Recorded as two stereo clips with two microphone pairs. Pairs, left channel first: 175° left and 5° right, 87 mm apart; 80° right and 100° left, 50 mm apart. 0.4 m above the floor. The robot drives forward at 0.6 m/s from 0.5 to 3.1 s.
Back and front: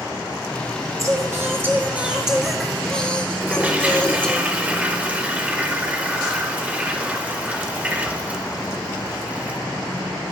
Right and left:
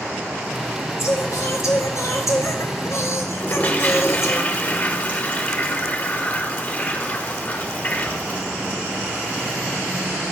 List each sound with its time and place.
1.0 s singing: 55° right, 1.6 m; by 4.4 s 105° right, 1.4 m
3.4 s a toilet flushing: 60° right, 1.0 m